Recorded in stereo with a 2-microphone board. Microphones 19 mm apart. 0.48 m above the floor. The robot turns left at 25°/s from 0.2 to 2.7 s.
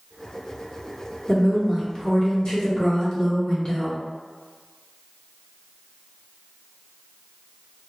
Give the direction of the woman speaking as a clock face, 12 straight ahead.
8 o'clock.